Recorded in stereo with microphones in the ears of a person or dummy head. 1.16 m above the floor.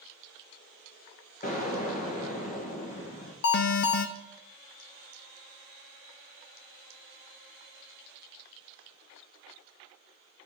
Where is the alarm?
55° left (ahead or behind), 0.7 m.